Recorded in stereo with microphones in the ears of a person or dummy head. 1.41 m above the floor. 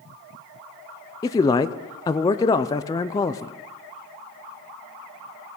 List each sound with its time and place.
1.2 s a man speaking: 15° left (ahead or behind), 0.6 m